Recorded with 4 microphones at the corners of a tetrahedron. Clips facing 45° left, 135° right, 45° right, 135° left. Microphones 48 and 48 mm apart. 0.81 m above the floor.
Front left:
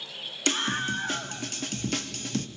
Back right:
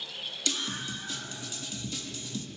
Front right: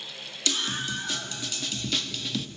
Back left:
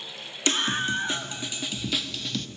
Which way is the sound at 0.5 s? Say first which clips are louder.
Front left 8 dB, back left 5 dB; 85° left.